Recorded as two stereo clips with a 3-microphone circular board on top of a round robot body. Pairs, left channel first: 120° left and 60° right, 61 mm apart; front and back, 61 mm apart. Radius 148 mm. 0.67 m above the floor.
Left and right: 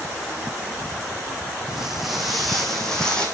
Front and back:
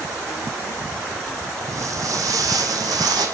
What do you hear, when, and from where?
1.7 s footsteps: 140° right, 3 m; by 3.2 s 160° right, 3 m